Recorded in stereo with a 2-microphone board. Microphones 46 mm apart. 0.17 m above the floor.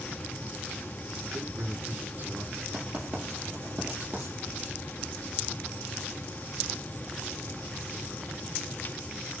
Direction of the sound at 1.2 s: 40° right (ahead or behind).